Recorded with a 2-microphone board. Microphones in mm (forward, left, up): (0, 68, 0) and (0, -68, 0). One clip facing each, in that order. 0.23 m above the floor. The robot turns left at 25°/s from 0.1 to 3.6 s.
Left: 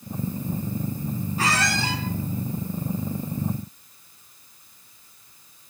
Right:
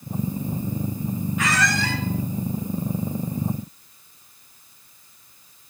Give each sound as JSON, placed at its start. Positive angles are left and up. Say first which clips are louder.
{"t": 1.4, "sound": "a squeak", "louder": "right 1 dB", "side_deg": 35, "distance_m": 2.5}